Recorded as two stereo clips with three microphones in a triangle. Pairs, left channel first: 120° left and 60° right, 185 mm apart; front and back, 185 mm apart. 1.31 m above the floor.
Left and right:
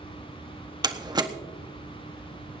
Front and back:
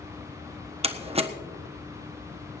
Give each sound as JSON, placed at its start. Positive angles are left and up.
{"t": 0.8, "sound": "a door slam", "azimuth_deg": -125, "distance_m": 1.2}